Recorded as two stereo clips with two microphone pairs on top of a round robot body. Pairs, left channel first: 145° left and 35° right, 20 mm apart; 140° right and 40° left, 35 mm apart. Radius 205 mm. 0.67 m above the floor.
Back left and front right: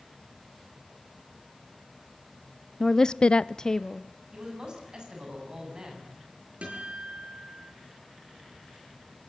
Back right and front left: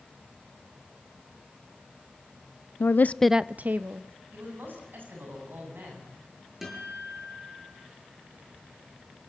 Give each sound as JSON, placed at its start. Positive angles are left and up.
{"t": 2.8, "sound": "a woman speaking", "azimuth_deg": -140, "distance_m": 0.8}
{"t": 4.3, "sound": "a man speaking", "azimuth_deg": 15, "distance_m": 8.0}
{"t": 6.6, "sound": "a guitar", "azimuth_deg": -45, "distance_m": 8.0}